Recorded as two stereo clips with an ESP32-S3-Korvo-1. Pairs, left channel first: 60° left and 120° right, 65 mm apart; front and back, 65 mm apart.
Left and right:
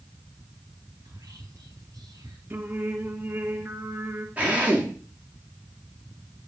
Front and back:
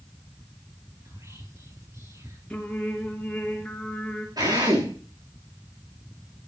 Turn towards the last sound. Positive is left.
turn(degrees=175)